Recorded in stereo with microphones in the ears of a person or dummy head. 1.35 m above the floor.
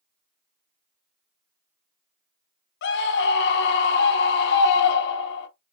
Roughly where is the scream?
Left.